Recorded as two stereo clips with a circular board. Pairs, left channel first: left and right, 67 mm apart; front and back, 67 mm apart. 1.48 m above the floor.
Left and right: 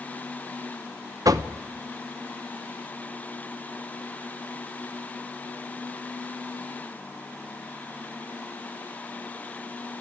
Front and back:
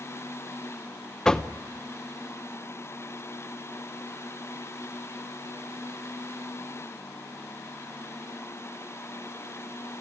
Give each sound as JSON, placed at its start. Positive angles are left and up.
{"t": 1.2, "sound": "knocking", "azimuth_deg": -80, "distance_m": 0.9}